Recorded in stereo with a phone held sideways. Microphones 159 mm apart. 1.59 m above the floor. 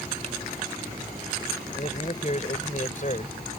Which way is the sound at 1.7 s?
45° left (ahead or behind).